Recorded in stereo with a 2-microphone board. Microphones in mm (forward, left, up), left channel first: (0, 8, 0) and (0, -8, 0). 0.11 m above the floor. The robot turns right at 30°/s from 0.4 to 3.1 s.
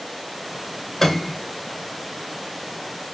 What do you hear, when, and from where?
1.0 s a piano: 20° left (ahead or behind), 0.5 m; by 1.4 s 15° left (ahead or behind), 0.5 m